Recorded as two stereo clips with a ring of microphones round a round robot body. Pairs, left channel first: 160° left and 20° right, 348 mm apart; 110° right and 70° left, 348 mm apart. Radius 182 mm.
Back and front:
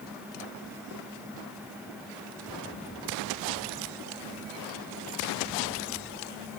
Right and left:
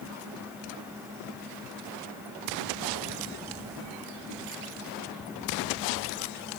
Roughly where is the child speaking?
No child speaking in this recording.